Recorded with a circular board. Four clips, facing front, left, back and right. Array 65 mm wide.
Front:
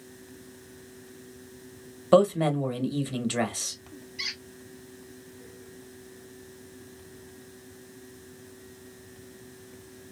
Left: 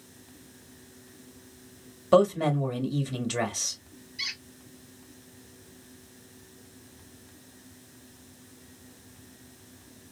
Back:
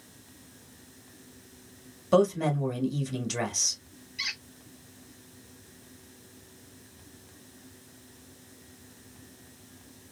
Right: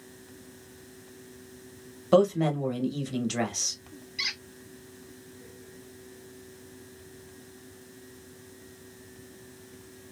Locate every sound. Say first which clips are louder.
2.1 s a man speaking: left 1 dB, front 3 dB; 15° left, 1.0 m
4.2 s a squeak: right 3 dB, back 2 dB; 105° right, 1.5 m